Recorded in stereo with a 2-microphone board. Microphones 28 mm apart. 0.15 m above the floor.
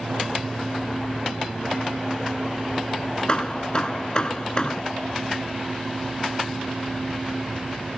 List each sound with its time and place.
3.3 s hammering: 30° left (ahead or behind)